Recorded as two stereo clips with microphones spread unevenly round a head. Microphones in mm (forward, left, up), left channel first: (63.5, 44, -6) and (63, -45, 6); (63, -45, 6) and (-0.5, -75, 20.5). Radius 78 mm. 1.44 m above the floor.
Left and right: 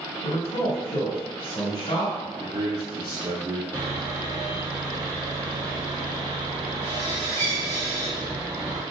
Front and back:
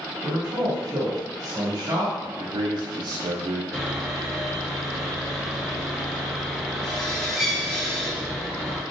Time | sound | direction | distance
0.2 | a man speaking | 155° left | 2 m
2.4 | a man speaking | 150° right | 0.5 m
3.7 | sawing | 60° right | 1.9 m